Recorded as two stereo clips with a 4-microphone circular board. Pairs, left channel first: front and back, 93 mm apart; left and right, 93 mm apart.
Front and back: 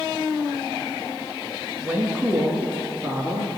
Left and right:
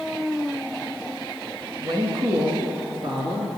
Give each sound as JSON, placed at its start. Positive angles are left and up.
{"t": 1.8, "sound": "a woman speaking", "azimuth_deg": -110, "distance_m": 2.0}